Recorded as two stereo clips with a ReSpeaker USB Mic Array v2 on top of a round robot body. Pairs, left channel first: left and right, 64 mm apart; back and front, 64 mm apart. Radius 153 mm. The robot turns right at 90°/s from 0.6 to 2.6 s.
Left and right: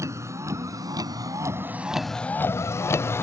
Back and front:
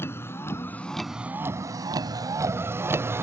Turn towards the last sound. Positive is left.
turn(degrees=45)